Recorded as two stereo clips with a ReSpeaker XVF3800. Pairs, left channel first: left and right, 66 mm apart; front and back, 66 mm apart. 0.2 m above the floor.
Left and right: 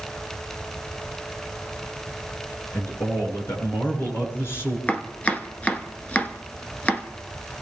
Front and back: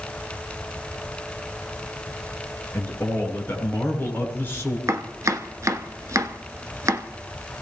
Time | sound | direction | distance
2.7 | a man speaking | 50° left | 3.5 m
4.9 | chopping | 155° left | 0.9 m